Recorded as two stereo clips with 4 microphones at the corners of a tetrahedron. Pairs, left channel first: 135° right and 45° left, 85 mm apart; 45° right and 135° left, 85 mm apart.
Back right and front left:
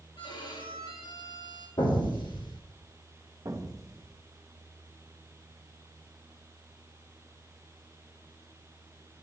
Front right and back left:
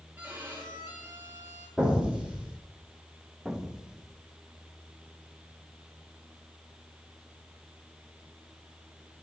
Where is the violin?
155° right, 4 m.